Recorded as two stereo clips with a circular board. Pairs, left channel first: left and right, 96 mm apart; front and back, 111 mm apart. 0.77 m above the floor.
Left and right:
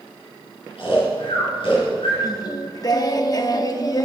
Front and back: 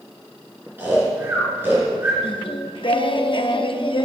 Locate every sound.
0.8 s snoring: 110° left, 5 m
2.2 s singing: 40° left, 0.7 m